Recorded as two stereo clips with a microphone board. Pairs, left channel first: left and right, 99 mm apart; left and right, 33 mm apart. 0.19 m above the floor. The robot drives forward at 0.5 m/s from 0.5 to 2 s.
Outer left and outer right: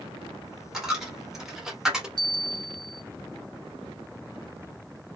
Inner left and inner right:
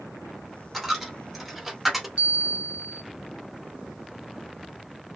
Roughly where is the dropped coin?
Centre.